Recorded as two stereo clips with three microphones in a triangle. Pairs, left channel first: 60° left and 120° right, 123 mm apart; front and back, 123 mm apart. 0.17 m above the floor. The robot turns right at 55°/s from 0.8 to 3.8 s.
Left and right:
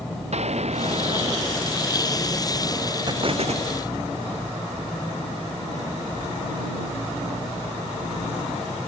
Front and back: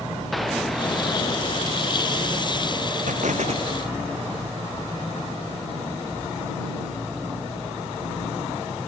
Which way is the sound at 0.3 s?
90° right.